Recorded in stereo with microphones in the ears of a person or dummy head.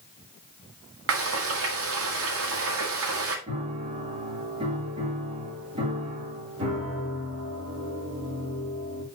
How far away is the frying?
About 1.8 m.